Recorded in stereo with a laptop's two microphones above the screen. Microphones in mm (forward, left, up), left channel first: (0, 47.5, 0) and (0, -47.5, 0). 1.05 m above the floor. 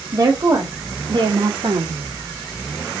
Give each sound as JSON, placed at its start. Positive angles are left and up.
{"t": 0.1, "sound": "a woman speaking", "side_deg": -35, "distance_m": 1.8}